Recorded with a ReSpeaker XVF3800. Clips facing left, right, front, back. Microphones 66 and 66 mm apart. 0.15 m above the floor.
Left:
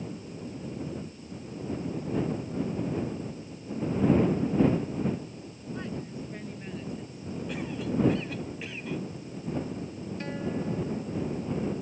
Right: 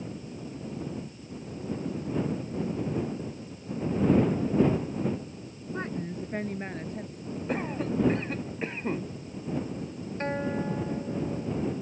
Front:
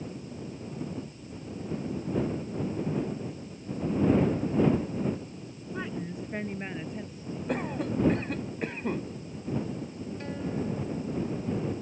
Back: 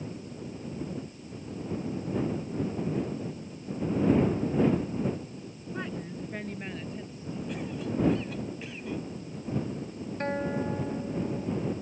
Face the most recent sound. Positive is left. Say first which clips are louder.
# right 3 dB, back 4 dB
turn(degrees=-140)